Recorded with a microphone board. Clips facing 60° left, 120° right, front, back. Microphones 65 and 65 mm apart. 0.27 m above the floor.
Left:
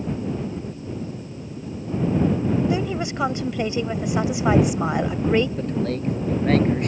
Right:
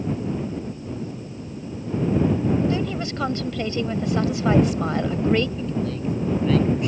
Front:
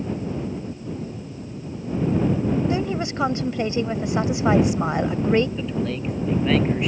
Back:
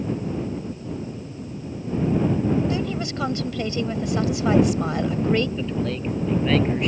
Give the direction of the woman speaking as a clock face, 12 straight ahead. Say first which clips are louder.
Left 1 dB, front 2 dB; 12 o'clock.